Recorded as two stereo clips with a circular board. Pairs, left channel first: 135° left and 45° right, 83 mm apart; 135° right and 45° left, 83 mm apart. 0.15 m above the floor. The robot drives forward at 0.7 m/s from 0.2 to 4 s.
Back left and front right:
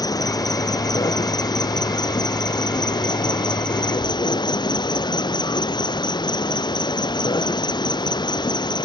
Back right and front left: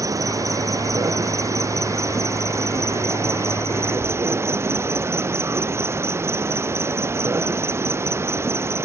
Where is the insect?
95° left; by 8.8 s 105° left.